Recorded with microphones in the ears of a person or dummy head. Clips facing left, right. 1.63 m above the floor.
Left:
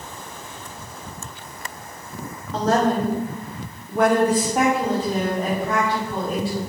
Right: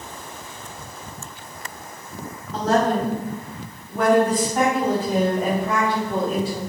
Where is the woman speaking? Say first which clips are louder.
Even; 75° left (ahead or behind), 1.7 m; by 6.6 s 55° right (ahead or behind), 1.6 m.